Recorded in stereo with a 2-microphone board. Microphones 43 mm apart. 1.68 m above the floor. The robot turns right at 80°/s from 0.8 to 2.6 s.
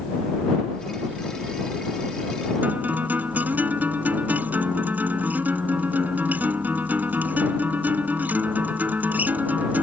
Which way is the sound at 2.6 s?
45° right (ahead or behind).